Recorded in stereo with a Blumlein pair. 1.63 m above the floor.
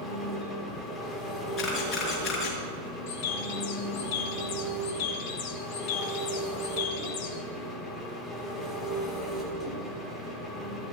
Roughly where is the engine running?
Ahead.